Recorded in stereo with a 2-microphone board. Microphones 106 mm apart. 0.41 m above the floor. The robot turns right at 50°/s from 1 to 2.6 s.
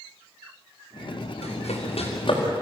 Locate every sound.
1.4 s running footsteps: 80° left, 7.5 m; by 2.4 s 45° left (ahead or behind), 7 m